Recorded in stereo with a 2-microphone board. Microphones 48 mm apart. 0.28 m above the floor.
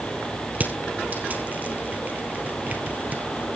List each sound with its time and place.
0.6 s crushing: 35° right (ahead or behind), 1.9 m